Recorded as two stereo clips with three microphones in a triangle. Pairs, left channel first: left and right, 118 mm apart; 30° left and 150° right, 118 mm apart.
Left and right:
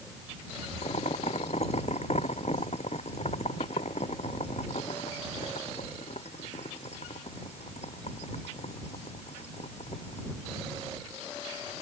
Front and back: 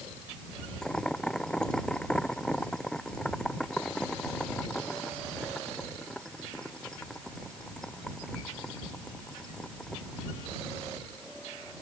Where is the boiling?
115° left.